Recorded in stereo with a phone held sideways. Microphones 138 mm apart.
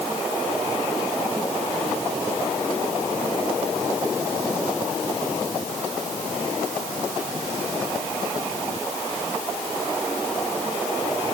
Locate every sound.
Only background noise.